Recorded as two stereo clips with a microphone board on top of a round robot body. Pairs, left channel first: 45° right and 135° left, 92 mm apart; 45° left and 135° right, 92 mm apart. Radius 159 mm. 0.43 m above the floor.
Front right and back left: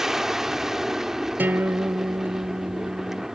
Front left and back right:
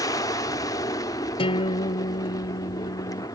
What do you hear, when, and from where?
0.0 s an aircraft: 50° left
1.4 s a guitar: 65° left